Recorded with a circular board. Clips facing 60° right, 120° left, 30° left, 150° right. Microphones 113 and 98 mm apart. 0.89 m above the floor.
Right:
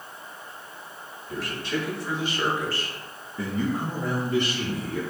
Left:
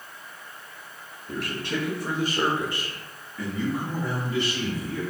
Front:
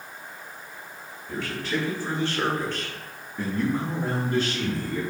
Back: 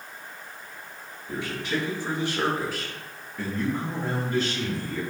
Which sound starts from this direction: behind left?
A man speaking, at 1.3 s.